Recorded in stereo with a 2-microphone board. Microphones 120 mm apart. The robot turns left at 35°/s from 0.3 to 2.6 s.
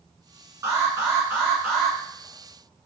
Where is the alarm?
135° right, 1.6 m; by 2.0 s 175° left, 1.6 m.